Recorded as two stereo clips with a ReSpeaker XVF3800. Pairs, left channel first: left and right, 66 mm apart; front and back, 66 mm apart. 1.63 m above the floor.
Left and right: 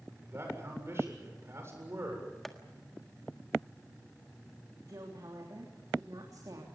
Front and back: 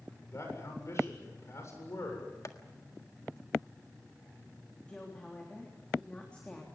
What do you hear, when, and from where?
0.2 s a man speaking: 45° right, 7.5 m
2.5 s tapping: 5° left, 1.6 m
4.9 s a woman speaking: 75° right, 3.5 m